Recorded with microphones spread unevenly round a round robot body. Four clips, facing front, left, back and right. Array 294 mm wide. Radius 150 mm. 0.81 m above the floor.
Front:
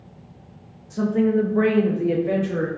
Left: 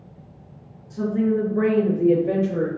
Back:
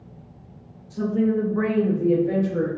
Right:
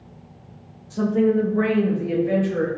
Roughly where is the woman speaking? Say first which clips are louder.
Right 3 dB, front 2 dB; ahead right.